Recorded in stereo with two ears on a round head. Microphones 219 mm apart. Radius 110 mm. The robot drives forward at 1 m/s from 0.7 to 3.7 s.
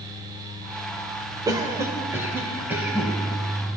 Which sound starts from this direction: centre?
A cough, at 1.5 s.